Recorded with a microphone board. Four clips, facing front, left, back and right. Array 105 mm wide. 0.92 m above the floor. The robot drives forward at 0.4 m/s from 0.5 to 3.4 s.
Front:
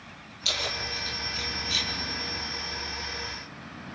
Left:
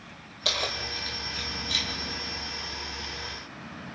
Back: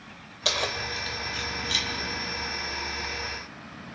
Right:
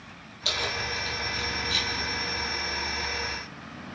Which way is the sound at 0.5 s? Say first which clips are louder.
Right 1 dB, back 4 dB; 155° left.